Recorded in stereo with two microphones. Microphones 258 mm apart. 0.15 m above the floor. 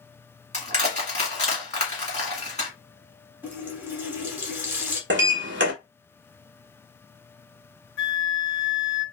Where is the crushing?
25° left (ahead or behind), 1.6 m.